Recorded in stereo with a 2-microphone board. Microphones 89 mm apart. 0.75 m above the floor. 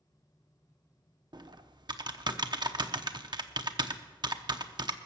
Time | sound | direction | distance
1.3 | typing on a keyboard | 55° right (ahead or behind) | 0.7 m